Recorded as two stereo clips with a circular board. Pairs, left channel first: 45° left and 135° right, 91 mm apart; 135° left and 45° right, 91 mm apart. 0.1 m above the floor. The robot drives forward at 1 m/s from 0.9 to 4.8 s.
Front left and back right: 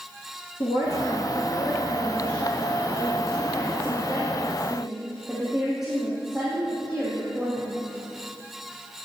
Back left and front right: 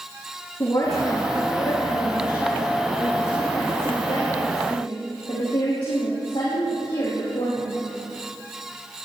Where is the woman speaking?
85° left, 3 m; by 7.8 s 145° left, 5 m.